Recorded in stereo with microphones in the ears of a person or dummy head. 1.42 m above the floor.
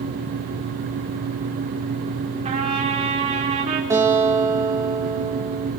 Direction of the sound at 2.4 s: 35° right (ahead or behind).